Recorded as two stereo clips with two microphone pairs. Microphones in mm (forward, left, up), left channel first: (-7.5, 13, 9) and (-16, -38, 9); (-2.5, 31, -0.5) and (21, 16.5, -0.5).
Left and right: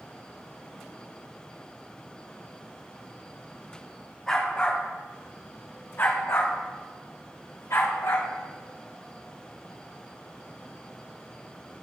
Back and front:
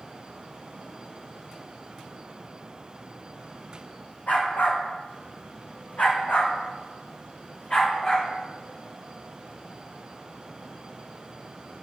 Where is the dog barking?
160° left, 3.5 m; by 8.3 s 90° left, 5 m.